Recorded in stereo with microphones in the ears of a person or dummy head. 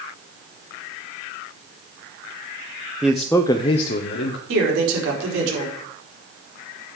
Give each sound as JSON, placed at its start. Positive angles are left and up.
{"t": 3.0, "sound": "a man speaking", "side_deg": -5, "distance_m": 1.0}
{"t": 4.5, "sound": "a man speaking", "side_deg": -80, "distance_m": 4.0}